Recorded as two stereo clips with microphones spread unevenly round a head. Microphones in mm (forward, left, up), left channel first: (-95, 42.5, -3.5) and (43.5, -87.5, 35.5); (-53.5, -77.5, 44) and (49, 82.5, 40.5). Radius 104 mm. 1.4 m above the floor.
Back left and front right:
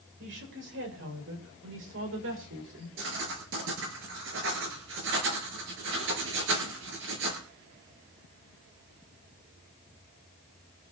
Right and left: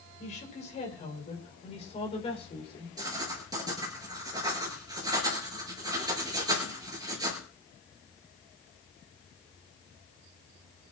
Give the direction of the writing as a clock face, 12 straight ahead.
12 o'clock.